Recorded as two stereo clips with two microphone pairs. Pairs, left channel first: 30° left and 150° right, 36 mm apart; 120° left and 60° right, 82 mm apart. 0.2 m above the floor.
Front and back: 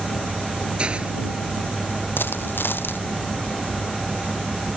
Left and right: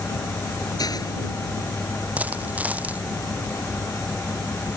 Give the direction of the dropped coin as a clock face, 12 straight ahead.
12 o'clock.